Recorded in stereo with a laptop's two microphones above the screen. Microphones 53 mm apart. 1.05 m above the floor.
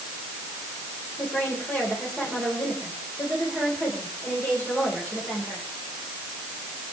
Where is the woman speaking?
25° left (ahead or behind), 4.5 m.